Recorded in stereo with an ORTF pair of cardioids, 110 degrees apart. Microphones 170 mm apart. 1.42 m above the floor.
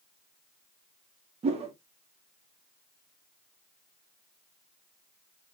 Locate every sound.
1.4 s a whoosh: 40° right, 0.8 m